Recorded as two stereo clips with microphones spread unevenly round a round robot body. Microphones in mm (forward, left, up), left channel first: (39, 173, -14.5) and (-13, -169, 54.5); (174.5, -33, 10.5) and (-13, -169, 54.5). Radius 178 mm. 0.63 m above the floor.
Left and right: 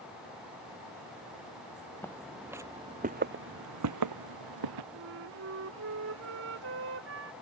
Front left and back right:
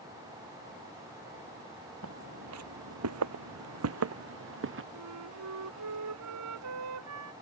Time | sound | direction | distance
2.0 | footsteps | 165° left | ?
4.9 | a flute | 155° right | ?